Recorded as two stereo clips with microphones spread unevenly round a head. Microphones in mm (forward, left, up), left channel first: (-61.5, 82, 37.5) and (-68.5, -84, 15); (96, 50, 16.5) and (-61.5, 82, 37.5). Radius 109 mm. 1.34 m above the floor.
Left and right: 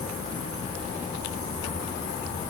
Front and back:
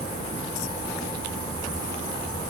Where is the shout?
I don't hear a shout.